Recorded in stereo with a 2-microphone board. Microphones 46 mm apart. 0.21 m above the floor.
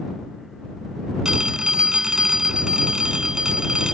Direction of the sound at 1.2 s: 15° right (ahead or behind).